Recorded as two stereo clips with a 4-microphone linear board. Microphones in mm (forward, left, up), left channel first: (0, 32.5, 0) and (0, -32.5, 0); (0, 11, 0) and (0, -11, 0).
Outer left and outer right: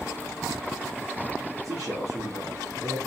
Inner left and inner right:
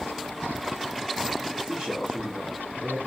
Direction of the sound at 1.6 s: 65° right (ahead or behind).